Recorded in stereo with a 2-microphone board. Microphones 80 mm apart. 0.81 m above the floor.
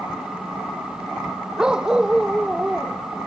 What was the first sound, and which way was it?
A dog barking, 10° right (ahead or behind).